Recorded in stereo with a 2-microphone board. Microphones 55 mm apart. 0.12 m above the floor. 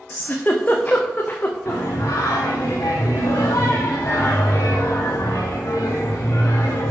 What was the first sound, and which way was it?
A giggle, 35° left (ahead or behind).